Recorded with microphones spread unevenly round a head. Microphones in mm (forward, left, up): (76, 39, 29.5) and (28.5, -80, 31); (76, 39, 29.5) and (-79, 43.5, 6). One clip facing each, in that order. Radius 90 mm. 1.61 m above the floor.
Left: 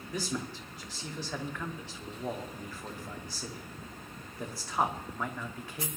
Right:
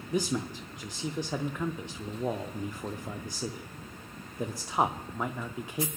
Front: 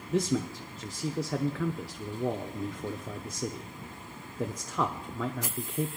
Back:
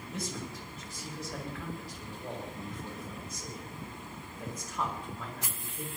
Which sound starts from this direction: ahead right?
A man speaking, at 0.1 s.